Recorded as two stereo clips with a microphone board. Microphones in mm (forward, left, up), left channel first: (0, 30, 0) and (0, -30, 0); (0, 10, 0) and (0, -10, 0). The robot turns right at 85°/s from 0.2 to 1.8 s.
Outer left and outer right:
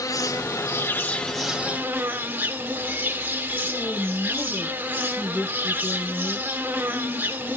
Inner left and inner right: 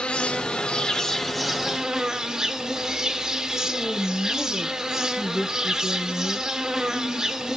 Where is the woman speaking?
10° left (ahead or behind), 8.5 m.